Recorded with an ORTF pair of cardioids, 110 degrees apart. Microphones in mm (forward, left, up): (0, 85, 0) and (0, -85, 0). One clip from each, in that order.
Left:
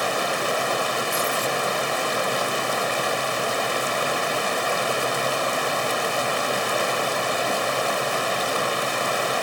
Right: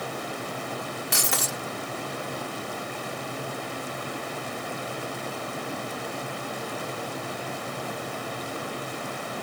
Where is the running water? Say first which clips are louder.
Left 10 dB; 65° left.